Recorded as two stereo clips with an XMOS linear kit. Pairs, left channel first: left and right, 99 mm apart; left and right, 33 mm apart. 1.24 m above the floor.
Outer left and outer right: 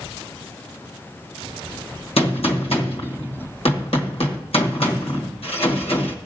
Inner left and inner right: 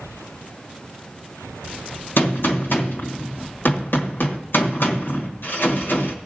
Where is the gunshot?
75° left (ahead or behind), 1.2 m.